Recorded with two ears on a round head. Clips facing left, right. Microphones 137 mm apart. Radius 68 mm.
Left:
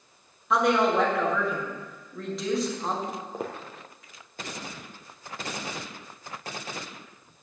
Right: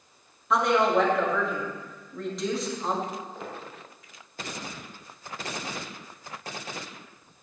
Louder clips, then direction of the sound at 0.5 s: Even; centre (ahead or behind).